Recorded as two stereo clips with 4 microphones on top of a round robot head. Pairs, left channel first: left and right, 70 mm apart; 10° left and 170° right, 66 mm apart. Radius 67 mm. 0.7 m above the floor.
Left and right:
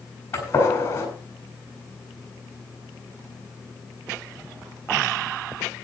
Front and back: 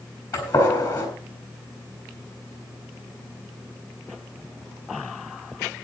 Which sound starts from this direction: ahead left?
A gunshot, at 0.3 s.